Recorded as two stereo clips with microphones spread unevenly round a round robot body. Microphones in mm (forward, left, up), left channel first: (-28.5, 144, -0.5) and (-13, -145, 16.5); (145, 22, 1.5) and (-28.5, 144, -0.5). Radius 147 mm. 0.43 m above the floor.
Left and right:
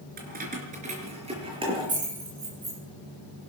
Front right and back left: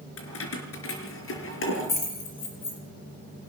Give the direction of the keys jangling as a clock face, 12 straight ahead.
1 o'clock.